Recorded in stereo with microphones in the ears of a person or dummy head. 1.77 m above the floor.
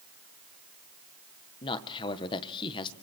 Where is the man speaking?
20° left (ahead or behind), 1.6 m.